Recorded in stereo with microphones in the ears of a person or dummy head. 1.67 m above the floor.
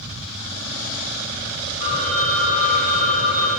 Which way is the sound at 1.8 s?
35° left (ahead or behind).